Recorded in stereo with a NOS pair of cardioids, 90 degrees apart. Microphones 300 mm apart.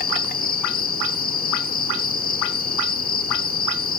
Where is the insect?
30° left, 1.6 m.